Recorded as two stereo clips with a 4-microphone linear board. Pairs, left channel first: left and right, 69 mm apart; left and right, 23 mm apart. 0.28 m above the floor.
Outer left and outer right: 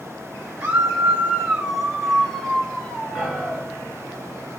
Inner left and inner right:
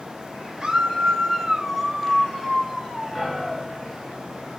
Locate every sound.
0.6 s a scream: 25° right (ahead or behind), 1.7 m; by 3.7 s 25° left (ahead or behind), 1.9 m
3.1 s a piano: centre (ahead or behind), 3 m